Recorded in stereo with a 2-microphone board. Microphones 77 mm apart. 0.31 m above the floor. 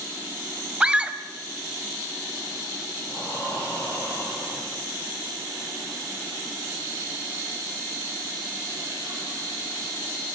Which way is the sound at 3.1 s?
35° left (ahead or behind).